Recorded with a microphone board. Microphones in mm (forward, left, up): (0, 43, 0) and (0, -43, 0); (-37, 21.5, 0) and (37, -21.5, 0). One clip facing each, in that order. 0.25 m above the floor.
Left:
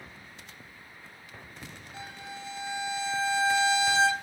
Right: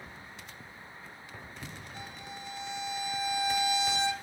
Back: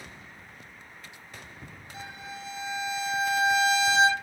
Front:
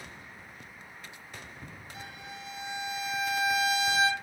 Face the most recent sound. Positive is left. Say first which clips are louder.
# left 5 dB, back 5 dB
turn(degrees=90)